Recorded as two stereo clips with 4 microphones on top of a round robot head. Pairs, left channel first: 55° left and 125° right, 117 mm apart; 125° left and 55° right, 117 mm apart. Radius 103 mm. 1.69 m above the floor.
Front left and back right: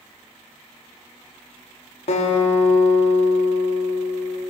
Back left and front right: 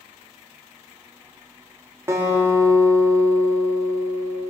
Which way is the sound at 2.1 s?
15° left.